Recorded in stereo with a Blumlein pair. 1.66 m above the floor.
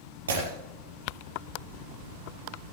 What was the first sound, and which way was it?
Breaking glass, 65° right.